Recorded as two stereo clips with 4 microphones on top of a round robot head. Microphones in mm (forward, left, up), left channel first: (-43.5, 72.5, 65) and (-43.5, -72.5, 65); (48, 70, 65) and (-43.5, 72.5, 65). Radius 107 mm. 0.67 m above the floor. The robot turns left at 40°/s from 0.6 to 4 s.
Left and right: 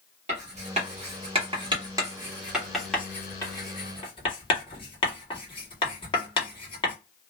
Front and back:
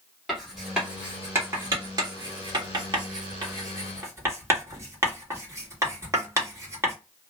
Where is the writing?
95° right, 1.6 m; by 6.9 s 130° left, 1.6 m.